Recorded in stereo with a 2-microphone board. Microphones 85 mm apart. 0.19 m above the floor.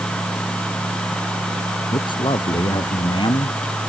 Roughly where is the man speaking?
Left.